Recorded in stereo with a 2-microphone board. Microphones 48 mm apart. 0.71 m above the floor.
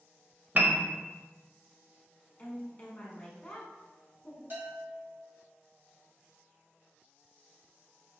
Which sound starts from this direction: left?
A woman speaking, at 2.4 s.